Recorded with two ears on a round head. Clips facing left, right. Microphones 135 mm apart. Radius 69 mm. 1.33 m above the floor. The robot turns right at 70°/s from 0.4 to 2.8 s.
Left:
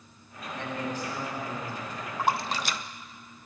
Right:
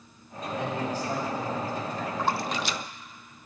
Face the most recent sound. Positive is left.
turn(degrees=45)  # may be behind; listen again after turning